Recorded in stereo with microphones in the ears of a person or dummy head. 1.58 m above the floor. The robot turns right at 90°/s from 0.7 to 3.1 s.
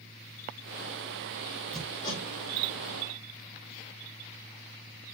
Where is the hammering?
Centre (ahead or behind), 4.5 m; by 2.2 s 45° left (ahead or behind), 4.5 m.